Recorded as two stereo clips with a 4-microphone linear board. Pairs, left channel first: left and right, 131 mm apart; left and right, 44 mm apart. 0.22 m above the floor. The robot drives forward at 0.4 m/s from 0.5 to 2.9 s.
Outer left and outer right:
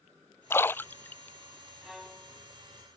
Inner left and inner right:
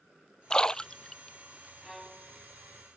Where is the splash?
20° left (ahead or behind); by 1.4 s 15° left (ahead or behind).